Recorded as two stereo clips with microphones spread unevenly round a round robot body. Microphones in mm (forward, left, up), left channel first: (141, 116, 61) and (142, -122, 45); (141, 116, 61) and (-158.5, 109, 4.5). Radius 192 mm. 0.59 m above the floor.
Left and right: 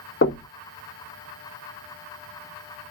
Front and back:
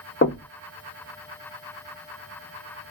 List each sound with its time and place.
0.2 s knocking: 60° left, 1.0 m